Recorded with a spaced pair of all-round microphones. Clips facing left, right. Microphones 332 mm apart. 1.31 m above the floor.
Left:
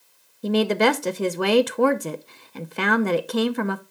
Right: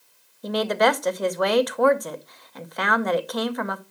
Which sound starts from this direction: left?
A woman speaking, at 0.4 s.